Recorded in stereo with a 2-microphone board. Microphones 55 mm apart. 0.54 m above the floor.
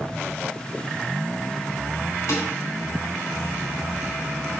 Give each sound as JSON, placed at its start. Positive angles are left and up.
{"t": 2.3, "sound": "dishes clattering", "side_deg": 55, "distance_m": 3.0}